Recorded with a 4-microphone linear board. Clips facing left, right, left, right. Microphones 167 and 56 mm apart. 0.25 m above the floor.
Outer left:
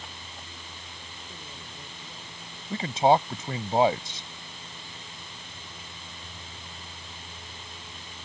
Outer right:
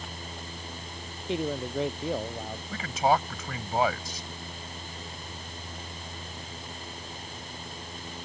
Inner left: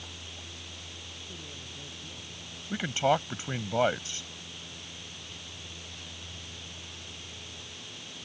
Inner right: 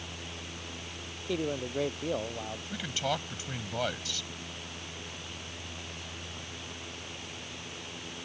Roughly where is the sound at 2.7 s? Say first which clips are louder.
Outer left 4 dB, inner left 7 dB; left.